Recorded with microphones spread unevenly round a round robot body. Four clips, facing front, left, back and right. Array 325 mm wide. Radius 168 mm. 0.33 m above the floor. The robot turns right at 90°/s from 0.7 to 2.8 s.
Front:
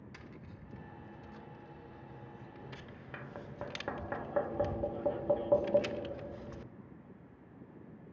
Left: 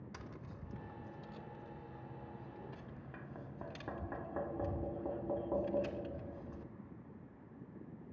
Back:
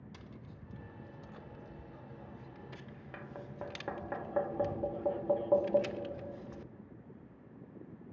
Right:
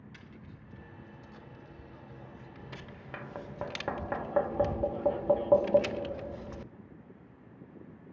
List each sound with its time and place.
0.1 s tapping: 105° left, 0.5 m; by 6.7 s 65° right, 0.5 m